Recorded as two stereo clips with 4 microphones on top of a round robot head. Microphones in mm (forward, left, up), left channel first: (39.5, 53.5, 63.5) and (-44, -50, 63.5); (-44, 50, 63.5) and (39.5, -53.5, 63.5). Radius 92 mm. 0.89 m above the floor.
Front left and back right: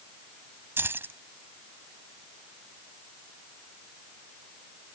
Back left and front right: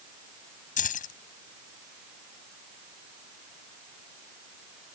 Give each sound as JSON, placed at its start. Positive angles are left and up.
{"t": 0.8, "sound": "keys jangling", "azimuth_deg": 155}